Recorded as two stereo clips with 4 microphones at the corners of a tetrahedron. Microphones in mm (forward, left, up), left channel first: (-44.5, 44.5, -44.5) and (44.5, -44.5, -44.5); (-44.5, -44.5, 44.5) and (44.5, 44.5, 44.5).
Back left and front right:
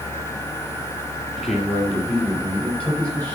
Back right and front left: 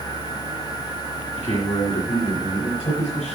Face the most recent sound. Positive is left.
turn(degrees=-150)